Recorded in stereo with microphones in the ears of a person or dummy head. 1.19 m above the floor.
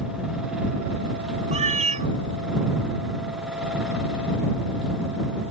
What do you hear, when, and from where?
1.5 s a cat meowing: 30° right (ahead or behind)